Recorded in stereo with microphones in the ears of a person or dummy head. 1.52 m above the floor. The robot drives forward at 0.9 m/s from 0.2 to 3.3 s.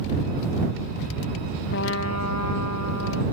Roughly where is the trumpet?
Left.